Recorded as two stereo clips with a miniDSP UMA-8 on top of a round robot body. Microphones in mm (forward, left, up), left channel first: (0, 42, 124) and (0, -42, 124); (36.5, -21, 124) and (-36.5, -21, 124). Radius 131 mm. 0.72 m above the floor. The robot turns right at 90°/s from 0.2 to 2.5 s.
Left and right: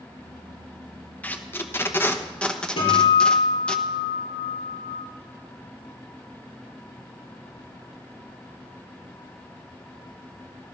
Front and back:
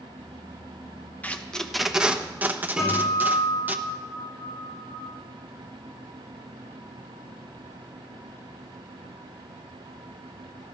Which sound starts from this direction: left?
A guitar, at 2.8 s.